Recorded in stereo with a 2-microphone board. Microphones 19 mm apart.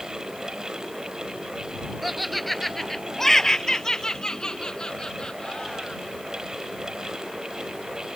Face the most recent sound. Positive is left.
turn(degrees=55)  # may be behind; listen again after turning